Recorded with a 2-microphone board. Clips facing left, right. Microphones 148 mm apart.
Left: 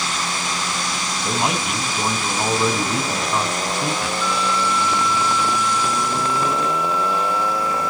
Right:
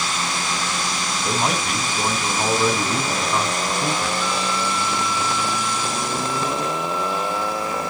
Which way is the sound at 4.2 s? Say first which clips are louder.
Left 2 dB; 25° right (ahead or behind).